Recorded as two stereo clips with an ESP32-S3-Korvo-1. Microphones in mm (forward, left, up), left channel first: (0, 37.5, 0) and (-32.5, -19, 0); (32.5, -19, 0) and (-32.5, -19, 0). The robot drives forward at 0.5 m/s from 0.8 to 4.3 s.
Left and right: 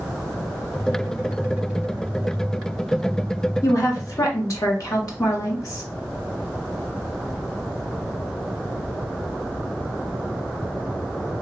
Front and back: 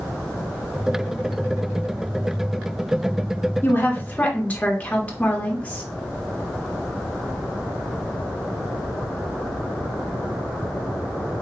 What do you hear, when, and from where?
3.6 s a woman speaking: 50° left, 1.4 m; by 5.8 s 65° left, 1.3 m